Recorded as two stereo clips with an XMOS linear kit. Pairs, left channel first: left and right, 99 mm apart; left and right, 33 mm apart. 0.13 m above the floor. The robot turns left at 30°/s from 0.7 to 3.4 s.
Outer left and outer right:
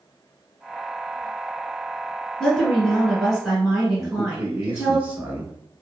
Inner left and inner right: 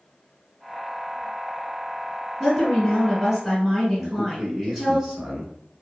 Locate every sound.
2.4 s a woman speaking: 5° left (ahead or behind), 1.0 m; by 5.0 s 5° right (ahead or behind), 1.0 m
4.0 s a man speaking: 15° right (ahead or behind), 1.0 m